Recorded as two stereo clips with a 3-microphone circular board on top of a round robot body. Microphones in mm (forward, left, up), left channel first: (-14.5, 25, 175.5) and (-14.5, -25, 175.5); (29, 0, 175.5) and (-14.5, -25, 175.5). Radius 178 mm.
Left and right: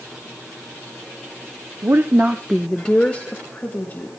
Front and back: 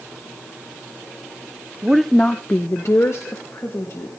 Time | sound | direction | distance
1.8 | a woman speaking | 75° right | 1.1 m